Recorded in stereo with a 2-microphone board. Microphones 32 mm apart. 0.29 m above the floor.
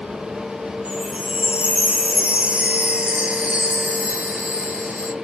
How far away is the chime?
About 0.8 m.